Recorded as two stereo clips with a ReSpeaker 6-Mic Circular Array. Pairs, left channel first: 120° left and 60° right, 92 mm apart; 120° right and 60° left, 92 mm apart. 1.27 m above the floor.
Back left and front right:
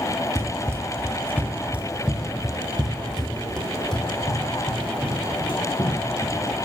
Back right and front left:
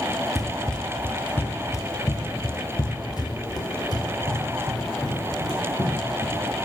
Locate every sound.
0.3 s running footsteps: 30° right, 1.5 m; by 6.4 s 165° right, 5 m